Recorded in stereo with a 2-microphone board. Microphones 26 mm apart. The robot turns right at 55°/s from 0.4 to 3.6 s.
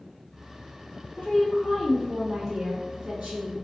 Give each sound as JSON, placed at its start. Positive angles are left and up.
{"t": 1.2, "sound": "a woman speaking", "azimuth_deg": 115, "distance_m": 1.5}